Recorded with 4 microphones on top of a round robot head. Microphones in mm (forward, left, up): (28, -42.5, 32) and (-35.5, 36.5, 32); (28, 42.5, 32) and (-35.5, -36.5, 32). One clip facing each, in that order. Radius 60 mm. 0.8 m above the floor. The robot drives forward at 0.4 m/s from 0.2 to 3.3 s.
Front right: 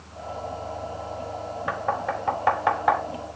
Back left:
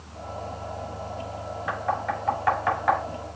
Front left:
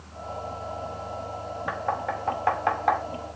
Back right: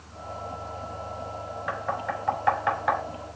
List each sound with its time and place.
1.7 s knocking: 5° left, 3 m